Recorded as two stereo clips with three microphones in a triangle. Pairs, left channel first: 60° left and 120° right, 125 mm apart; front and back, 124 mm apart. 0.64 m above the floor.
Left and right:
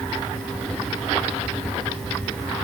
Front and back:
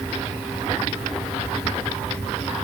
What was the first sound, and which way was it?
Only background noise.